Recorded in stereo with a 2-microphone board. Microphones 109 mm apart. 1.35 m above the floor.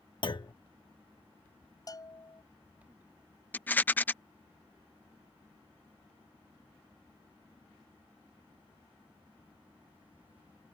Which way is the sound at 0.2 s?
50° left (ahead or behind).